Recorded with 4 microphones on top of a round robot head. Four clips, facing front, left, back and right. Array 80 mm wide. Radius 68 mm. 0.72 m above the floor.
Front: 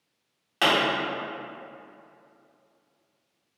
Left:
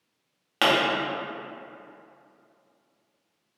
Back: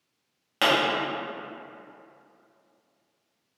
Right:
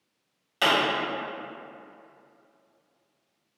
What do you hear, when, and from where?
0.6 s a pop: 100° left, 1.7 m